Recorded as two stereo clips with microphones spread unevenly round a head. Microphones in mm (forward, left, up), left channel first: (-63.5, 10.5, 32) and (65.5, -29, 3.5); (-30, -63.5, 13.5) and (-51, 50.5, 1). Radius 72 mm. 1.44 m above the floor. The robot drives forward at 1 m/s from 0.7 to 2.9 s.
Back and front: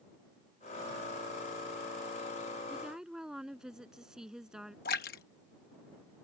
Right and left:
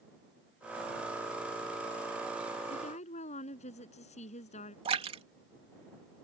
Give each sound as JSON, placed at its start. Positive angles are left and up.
{"t": 2.7, "sound": "a woman speaking", "azimuth_deg": -100}
{"t": 4.8, "sound": "a splash", "azimuth_deg": 140}